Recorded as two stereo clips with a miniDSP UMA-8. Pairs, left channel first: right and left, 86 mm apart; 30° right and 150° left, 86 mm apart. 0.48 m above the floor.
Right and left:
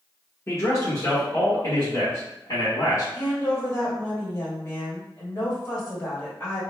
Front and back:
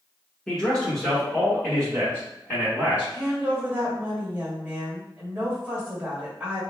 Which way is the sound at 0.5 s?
105° right.